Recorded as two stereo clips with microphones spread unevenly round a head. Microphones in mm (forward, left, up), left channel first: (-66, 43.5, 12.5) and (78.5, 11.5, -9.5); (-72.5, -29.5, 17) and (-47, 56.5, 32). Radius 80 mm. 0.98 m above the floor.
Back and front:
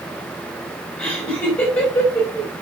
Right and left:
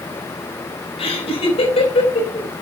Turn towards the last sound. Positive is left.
turn(degrees=-110)